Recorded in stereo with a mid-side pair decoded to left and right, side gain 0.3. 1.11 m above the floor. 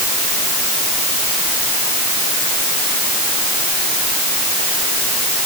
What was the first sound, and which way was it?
Only background noise.